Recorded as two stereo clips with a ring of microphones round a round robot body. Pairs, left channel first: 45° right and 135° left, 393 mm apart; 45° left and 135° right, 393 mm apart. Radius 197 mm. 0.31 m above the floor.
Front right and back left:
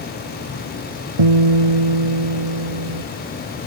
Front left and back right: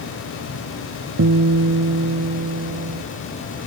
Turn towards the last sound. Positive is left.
turn(degrees=165)